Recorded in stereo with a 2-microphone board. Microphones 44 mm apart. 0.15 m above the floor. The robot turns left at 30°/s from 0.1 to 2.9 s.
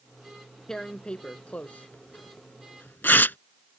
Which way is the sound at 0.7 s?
15° left (ahead or behind).